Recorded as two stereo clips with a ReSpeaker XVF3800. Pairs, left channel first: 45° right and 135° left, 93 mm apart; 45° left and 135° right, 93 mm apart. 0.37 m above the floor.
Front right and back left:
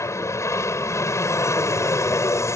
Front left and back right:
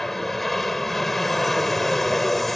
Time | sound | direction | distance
0.0 | an aircraft | 40° right | ?